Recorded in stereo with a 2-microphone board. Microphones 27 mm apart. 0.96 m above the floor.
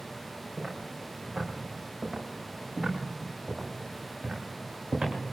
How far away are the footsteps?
About 8 m.